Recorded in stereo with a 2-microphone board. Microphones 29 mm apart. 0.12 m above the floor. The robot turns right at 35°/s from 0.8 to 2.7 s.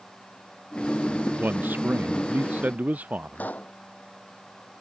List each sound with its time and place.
1.4 s a man speaking: 105° right; by 3.5 s 55° right
3.4 s a pop: 65° left (ahead or behind)